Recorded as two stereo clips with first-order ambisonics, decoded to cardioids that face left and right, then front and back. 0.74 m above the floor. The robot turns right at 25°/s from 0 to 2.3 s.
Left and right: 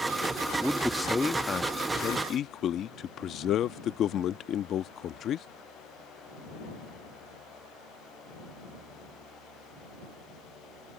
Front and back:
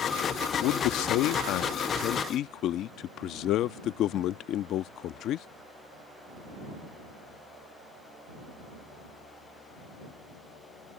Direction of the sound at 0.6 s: 5° right.